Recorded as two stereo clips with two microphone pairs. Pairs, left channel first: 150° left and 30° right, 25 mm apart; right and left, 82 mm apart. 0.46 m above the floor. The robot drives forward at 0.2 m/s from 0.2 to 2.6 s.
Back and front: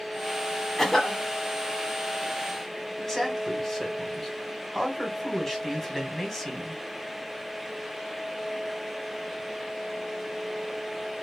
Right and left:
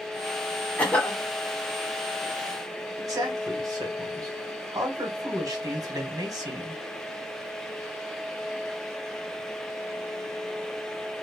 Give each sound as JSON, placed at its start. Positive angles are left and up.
{"t": 0.8, "sound": "a cough", "azimuth_deg": -150, "distance_m": 1.1}
{"t": 3.0, "sound": "a man speaking", "azimuth_deg": 75, "distance_m": 1.2}